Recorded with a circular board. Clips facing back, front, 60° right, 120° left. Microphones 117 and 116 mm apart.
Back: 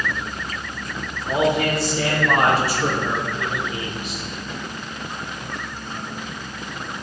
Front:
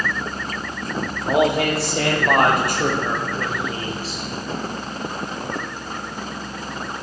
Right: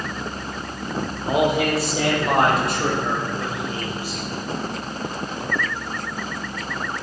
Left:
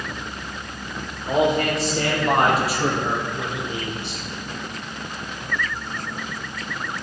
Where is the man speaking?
20° left, 6 m; by 4.2 s 60° left, 4.5 m.